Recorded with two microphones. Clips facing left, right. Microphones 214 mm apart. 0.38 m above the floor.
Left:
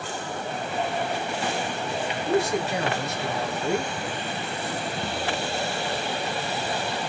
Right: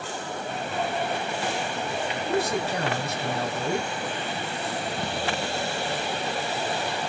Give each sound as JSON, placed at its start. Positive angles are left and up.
{"t": 2.2, "sound": "a man speaking", "side_deg": -55, "distance_m": 1.9}